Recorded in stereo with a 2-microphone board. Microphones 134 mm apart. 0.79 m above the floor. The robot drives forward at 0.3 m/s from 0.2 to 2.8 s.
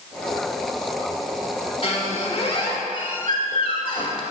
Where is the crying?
I don't hear crying.